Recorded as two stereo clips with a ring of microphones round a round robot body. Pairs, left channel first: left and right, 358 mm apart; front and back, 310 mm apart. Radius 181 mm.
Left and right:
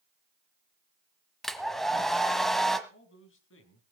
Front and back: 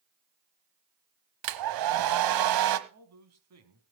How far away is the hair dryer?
About 1.3 m.